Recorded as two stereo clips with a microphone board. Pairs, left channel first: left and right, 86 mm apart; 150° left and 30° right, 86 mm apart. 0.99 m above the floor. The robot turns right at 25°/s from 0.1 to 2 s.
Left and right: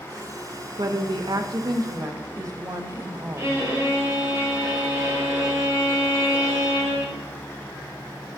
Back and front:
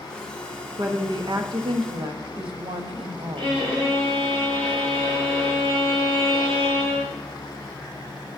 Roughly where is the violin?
Ahead right.